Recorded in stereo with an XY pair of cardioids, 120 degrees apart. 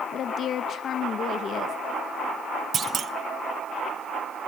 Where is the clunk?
40° right, 1.1 m.